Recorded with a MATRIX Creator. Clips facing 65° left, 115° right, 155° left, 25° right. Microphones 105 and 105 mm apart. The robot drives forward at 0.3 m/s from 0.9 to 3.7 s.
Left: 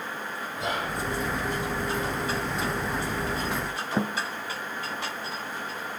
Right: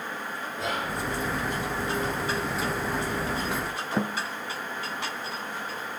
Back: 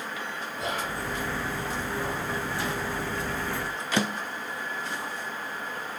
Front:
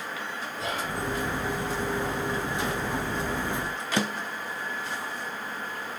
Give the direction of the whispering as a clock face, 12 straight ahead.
8 o'clock.